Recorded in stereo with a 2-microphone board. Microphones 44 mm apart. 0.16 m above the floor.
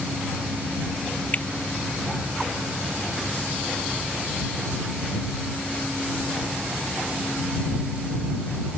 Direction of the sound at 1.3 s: 35° left (ahead or behind).